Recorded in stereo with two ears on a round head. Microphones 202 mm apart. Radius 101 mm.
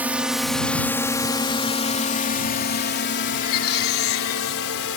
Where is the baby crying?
65° left (ahead or behind).